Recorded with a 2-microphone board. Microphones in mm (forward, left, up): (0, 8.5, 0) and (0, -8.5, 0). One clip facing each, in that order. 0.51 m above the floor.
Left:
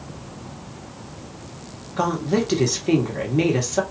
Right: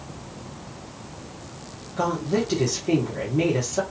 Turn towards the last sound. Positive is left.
turn(degrees=35)  # may be behind; listen again after turning